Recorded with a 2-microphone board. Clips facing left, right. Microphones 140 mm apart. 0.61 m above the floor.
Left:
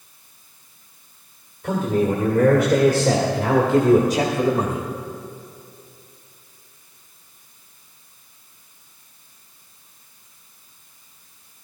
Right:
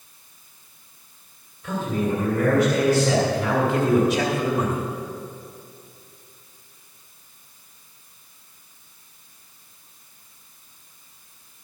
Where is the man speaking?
55° left (ahead or behind), 2.5 m; by 4.8 s 30° left (ahead or behind), 1.3 m.